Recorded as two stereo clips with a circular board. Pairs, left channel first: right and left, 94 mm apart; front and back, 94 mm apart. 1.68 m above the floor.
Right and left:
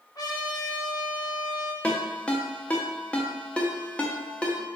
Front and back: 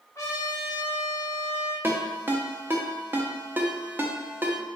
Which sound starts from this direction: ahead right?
A trumpet, at 0.1 s.